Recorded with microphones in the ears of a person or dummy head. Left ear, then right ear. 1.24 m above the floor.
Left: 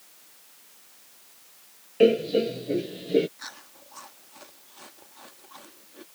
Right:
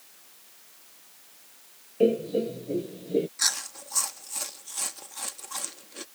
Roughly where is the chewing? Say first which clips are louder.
Right 14 dB; right.